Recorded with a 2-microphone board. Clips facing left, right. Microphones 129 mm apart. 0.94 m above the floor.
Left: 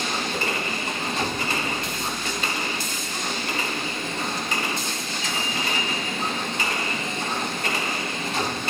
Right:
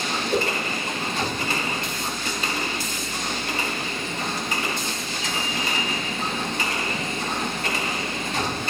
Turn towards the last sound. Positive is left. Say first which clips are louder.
# right 5 dB
turn(degrees=-80)